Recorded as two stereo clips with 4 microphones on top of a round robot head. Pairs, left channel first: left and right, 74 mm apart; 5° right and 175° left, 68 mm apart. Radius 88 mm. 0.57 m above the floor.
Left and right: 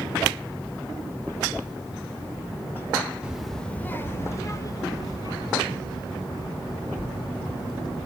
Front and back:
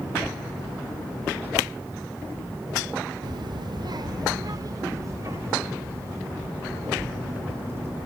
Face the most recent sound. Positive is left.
turn(degrees=115)